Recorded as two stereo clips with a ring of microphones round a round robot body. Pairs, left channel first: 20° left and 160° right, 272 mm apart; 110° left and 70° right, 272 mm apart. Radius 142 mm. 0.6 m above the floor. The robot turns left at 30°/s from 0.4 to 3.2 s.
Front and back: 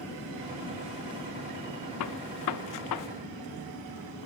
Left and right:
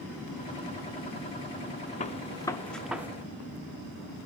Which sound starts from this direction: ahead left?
A gunshot, at 2.0 s.